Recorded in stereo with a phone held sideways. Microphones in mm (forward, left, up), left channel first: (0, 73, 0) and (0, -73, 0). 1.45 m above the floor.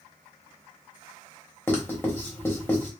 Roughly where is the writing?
Centre.